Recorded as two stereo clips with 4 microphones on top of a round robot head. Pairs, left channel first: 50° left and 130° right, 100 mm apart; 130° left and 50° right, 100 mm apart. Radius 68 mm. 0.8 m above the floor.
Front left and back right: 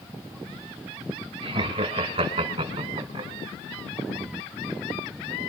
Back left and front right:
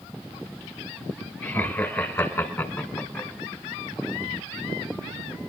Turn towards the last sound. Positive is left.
turn(degrees=-150)